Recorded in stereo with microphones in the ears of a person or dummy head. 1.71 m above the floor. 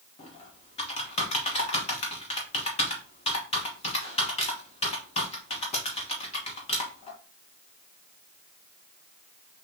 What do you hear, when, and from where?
0.2 s typing on a keyboard: 35° left (ahead or behind), 1.1 m